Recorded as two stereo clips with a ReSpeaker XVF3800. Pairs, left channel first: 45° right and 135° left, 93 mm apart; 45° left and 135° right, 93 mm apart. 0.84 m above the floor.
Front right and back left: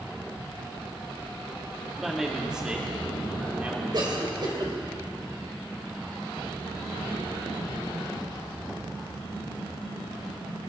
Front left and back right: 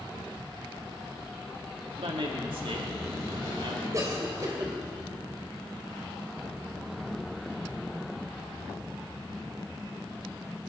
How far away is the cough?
About 3.5 m.